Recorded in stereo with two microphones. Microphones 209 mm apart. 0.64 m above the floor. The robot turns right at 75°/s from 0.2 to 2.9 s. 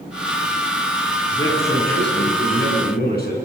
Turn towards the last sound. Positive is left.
turn(degrees=125)